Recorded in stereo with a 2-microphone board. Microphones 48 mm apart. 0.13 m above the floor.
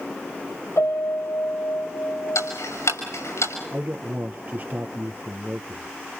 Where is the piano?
65° left (ahead or behind), 4.5 m.